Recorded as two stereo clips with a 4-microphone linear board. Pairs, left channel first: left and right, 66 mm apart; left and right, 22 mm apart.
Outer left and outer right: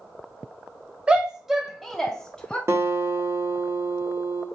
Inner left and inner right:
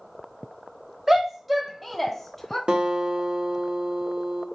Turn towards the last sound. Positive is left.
turn(degrees=-40)  # may be behind; listen again after turning